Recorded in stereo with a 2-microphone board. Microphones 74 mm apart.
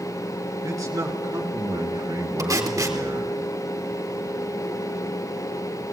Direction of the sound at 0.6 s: 50° right (ahead or behind).